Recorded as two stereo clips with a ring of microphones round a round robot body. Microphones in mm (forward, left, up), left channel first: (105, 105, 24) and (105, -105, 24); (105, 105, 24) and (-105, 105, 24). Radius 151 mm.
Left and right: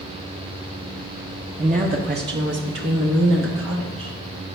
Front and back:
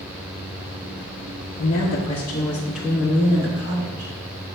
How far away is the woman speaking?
About 0.8 m.